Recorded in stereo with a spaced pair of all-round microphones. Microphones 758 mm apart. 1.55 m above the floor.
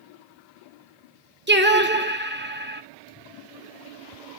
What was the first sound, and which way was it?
Singing, 15° right (ahead or behind).